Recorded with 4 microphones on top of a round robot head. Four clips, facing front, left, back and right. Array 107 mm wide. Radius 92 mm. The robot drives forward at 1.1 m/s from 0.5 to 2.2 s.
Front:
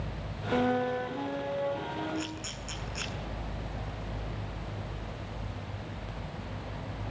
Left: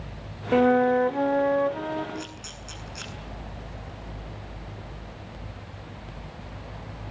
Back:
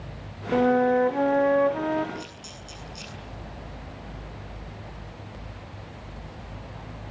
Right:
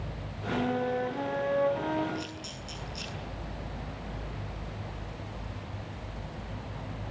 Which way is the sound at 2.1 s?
40° left.